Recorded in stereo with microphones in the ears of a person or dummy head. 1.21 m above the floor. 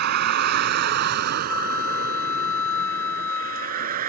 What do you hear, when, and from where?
0.0 s a vehicle: 60° right (ahead or behind); by 4.1 s 50° right (ahead or behind)
1.5 s a flute: 10° left (ahead or behind)